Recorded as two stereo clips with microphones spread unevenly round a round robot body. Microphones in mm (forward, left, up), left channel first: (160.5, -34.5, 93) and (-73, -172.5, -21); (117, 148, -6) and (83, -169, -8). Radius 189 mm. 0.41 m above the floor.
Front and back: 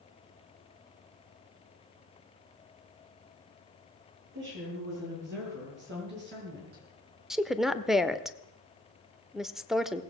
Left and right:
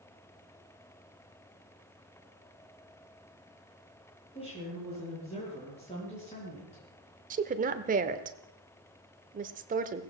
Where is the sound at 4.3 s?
160° left, 8 m; by 6.8 s 155° left, 4.5 m.